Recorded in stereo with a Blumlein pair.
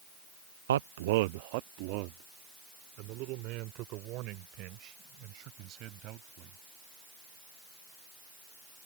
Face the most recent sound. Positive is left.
turn(degrees=-40)